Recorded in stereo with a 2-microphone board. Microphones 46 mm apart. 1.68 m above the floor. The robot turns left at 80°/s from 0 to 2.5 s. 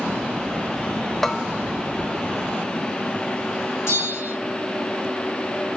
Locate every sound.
1.2 s a bell: 10° left (ahead or behind), 0.7 m; by 1.5 s 10° right (ahead or behind), 0.7 m
3.9 s a bell: 80° left, 4.5 m